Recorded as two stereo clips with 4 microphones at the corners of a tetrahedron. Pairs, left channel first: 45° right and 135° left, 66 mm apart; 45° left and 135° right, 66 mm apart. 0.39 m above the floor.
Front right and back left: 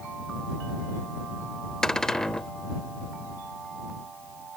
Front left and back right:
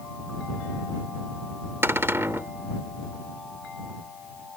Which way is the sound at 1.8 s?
120° right.